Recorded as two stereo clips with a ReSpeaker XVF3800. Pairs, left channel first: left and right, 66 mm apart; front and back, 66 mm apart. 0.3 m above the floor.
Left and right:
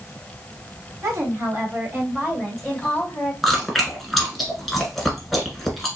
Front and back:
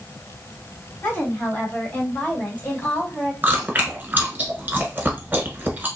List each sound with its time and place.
1.0 s a woman speaking: 60° right, 2 m; by 3.3 s 50° left, 1.5 m
3.4 s chewing: straight behind, 1.4 m